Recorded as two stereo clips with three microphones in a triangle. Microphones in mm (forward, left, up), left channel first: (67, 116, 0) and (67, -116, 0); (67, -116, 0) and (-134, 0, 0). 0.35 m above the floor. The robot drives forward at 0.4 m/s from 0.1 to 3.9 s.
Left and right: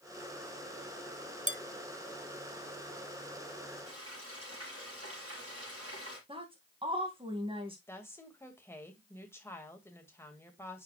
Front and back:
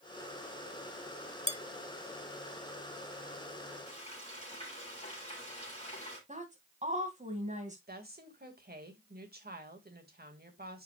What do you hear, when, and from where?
1.5 s dishes clattering: 60° right, 0.6 m; by 1.6 s 65° right, 0.6 m
3.9 s frying: 95° right, 4.5 m
6.3 s a woman speaking: 155° right, 2.5 m
7.9 s a woman speaking: 165° left, 1.9 m